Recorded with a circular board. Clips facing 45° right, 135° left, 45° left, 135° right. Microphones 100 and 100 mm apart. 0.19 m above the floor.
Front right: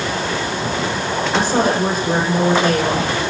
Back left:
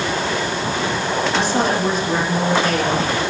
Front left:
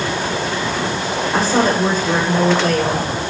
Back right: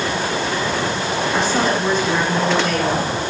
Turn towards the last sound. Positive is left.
turn(degrees=-5)